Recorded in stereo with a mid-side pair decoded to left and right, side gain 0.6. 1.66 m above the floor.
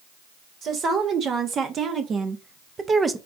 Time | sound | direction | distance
0.6 | a woman speaking | 50° right | 1.8 m